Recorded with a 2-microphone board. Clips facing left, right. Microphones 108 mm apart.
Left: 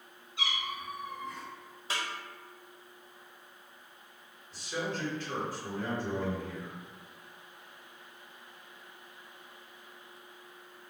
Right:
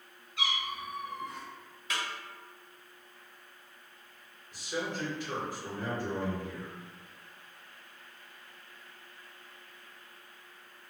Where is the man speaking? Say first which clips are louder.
Even; 15° right (ahead or behind), 1.4 m.